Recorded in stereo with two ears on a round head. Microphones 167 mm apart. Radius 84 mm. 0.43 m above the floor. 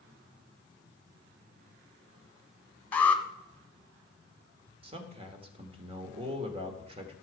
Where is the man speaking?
30° right (ahead or behind), 1.6 m.